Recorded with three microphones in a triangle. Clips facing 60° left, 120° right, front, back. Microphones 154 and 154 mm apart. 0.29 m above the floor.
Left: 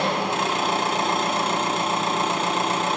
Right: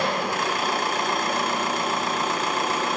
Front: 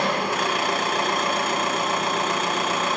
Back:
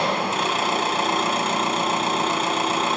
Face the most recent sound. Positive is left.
turn(degrees=120)